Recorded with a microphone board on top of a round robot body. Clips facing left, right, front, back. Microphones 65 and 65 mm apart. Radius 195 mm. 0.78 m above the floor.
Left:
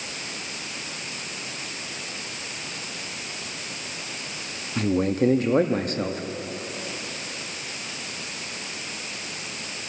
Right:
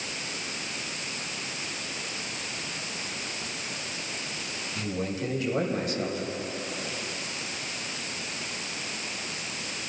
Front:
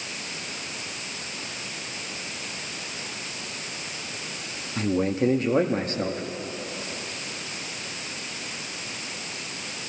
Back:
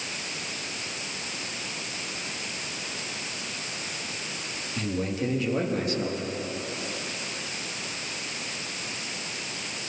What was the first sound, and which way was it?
A man speaking, 50° left.